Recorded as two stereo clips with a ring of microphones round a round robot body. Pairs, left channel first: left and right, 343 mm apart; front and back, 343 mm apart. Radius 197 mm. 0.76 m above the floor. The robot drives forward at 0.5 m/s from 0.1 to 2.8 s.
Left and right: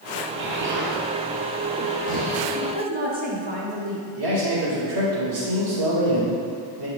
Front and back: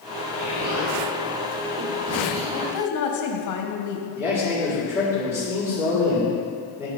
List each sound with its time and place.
0.4 s an explosion: 145° right, 1.9 m; by 2.4 s 160° right, 2.5 m
2.5 s a woman speaking: 25° right, 2 m; by 4.0 s 30° right, 1.9 m
4.2 s a man speaking: 90° right, 3.5 m